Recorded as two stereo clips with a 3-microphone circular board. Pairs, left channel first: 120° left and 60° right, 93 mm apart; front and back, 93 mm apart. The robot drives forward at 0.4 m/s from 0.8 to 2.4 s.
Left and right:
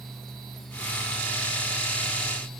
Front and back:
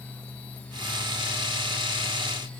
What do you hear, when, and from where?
Only background noise.